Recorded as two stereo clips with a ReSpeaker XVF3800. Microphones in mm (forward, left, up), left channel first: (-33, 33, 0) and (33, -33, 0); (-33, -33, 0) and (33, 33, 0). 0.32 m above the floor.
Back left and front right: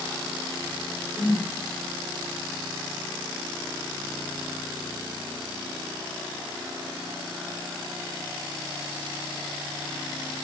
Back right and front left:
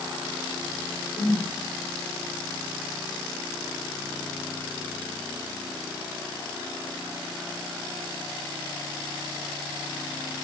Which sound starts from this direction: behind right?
A whoosh, at 1.1 s.